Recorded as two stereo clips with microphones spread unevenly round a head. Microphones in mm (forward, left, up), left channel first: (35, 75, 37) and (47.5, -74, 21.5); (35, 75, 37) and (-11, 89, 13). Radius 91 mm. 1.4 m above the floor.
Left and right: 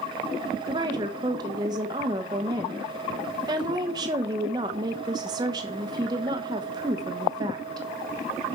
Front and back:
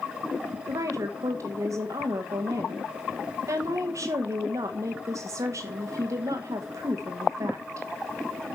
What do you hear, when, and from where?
0.7 s a woman speaking: 155° right, 1.1 m